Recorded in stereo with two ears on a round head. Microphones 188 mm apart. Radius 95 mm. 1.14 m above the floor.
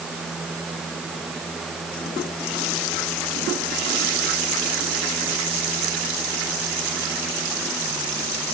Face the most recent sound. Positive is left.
No sound to turn to.